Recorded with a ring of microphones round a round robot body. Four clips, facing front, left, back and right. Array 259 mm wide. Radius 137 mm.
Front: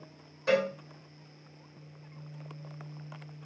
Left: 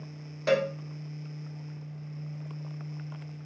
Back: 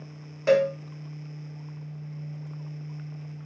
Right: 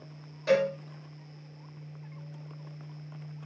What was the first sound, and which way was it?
A cowbell, 140° left.